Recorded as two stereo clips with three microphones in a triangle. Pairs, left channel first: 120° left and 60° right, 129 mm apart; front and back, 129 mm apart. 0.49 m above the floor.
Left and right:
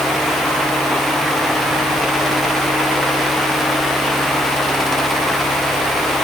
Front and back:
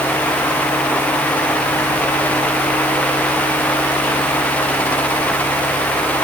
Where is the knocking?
No knocking in this recording.